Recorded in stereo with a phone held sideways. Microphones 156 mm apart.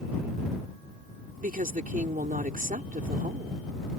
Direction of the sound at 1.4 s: 65° right (ahead or behind).